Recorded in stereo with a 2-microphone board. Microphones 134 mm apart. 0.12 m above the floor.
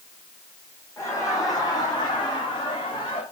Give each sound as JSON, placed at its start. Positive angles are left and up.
{"t": 1.0, "sound": "laughter", "side_deg": 25, "distance_m": 8.0}